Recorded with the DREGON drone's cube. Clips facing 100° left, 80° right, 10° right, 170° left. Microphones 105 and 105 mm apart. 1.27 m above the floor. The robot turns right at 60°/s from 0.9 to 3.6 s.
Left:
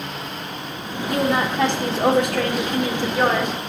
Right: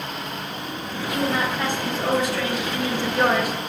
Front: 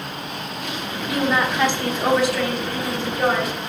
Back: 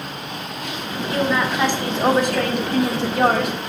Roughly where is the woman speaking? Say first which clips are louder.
Left 3 dB, even; ahead left.